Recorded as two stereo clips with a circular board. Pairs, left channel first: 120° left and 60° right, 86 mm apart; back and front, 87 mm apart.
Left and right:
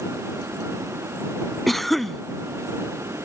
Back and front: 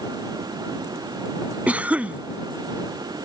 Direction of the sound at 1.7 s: 35° left.